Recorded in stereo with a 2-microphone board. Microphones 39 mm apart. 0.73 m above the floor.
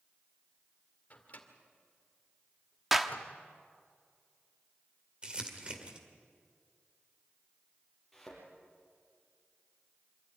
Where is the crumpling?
25° right (ahead or behind), 2.0 m.